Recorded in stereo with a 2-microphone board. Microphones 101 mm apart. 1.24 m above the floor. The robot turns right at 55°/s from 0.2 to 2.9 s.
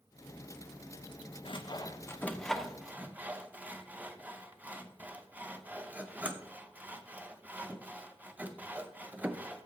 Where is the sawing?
60° left (ahead or behind), 0.7 m; by 9.7 s 15° right (ahead or behind), 0.7 m.